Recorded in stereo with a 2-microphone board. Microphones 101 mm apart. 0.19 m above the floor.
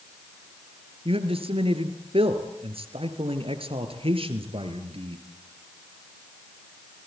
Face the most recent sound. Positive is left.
turn(degrees=-65)  # may be behind; listen again after turning